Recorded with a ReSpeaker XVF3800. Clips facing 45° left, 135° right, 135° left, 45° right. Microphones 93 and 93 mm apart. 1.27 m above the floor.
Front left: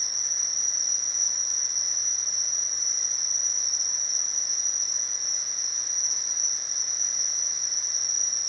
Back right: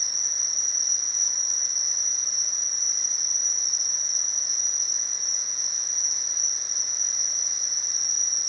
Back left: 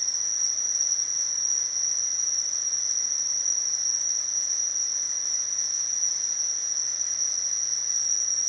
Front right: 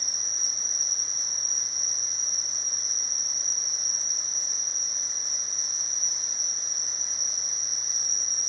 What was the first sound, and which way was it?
An insect, 40° left.